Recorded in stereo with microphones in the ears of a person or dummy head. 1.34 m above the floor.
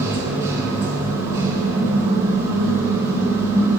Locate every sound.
0.0 s a machine running: 20° right (ahead or behind), 1.6 m